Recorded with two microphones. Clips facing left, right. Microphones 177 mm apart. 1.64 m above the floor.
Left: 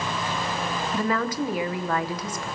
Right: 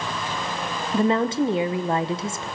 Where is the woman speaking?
30° right (ahead or behind), 0.7 m.